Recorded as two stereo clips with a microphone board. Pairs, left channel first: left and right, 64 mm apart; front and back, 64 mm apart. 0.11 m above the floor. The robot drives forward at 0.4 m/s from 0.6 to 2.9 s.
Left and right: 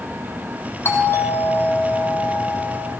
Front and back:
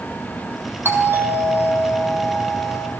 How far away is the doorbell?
About 4 m.